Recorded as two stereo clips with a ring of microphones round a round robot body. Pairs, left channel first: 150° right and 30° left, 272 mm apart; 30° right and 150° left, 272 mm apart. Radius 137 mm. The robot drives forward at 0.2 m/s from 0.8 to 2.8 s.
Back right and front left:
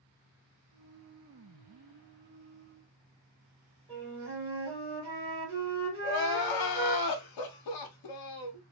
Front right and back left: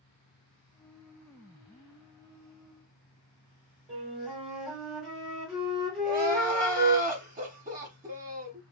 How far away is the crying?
About 0.6 m.